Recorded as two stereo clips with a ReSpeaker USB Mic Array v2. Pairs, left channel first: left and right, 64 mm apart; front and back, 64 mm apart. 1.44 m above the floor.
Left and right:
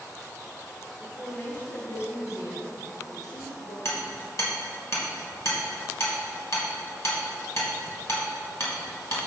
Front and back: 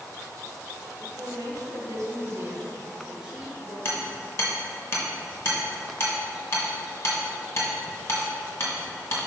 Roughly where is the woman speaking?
Behind.